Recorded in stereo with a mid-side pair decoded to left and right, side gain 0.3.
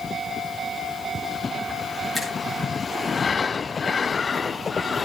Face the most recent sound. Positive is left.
turn(degrees=15)